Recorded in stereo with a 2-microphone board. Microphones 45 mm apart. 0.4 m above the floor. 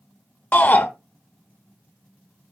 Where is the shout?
35° left (ahead or behind), 0.9 m.